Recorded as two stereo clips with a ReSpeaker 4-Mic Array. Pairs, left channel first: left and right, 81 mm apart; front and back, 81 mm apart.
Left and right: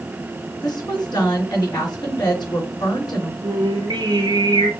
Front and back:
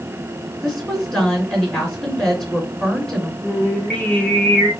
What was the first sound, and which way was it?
A woman speaking, 85° left.